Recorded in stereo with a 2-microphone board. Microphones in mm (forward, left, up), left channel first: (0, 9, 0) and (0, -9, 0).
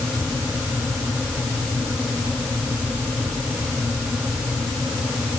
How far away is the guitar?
I don't hear a guitar.